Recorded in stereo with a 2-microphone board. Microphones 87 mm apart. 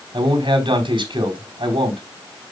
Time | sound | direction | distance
0.1 | a man speaking | 70° right (ahead or behind) | 4 m